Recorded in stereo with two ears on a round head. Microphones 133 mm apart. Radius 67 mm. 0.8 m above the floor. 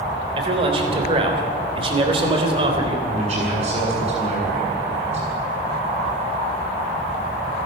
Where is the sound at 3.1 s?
40° right (ahead or behind), 7.5 m.